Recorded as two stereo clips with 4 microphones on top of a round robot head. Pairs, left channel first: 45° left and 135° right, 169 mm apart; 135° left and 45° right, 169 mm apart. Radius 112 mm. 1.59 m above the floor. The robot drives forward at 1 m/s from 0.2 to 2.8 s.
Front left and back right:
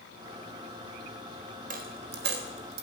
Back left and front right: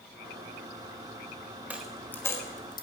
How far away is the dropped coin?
About 1.0 m.